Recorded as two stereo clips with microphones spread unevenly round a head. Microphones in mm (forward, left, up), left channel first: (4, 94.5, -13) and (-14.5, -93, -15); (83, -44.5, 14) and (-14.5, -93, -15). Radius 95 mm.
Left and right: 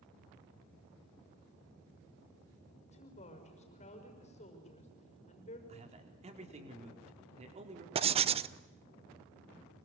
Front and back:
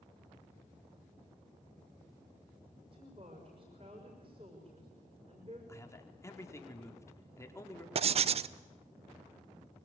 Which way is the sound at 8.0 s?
140° right.